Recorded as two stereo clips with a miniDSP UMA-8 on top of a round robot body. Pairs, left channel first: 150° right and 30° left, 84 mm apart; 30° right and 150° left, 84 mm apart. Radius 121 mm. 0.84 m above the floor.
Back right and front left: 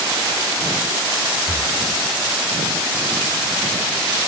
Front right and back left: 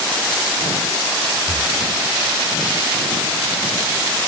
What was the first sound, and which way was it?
Breathing, 115° left.